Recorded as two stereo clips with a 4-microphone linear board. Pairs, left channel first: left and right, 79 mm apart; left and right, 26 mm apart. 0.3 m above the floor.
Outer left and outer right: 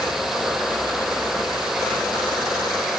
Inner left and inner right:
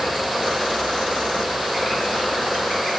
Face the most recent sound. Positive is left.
No sound to turn to.